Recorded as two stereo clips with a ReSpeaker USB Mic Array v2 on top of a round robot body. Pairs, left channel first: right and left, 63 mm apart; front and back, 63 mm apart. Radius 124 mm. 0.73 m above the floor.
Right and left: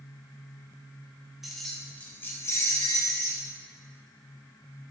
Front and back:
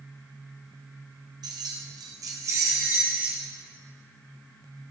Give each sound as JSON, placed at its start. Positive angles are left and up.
{"t": 1.4, "sound": "keys jangling", "azimuth_deg": 175, "distance_m": 1.8}